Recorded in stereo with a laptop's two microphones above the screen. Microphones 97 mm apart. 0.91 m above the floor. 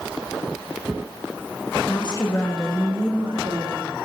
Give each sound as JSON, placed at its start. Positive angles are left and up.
{"t": 1.9, "sound": "a woman speaking", "side_deg": 55, "distance_m": 1.4}